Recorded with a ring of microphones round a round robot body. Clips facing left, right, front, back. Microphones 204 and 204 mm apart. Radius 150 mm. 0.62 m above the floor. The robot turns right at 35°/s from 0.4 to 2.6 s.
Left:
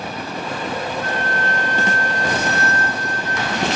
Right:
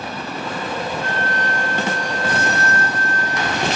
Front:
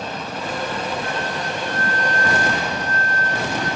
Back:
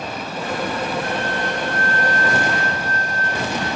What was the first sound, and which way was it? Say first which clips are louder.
A flute: even, back 2 dB; 35° right.